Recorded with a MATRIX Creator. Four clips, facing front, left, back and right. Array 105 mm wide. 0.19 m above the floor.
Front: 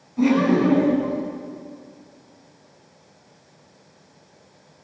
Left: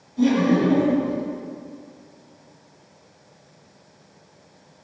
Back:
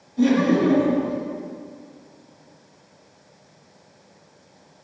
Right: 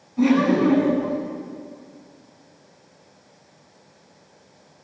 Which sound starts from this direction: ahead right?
Laughter, at 0.2 s.